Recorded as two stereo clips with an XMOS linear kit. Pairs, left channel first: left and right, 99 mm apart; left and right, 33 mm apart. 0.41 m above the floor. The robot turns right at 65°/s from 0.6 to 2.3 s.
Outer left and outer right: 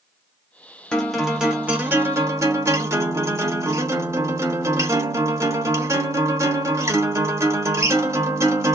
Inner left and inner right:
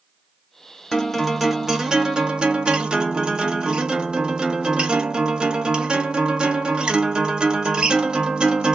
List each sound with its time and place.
0.9 s a guitar: 165° left, 0.9 m; by 8.8 s 105° right, 0.9 m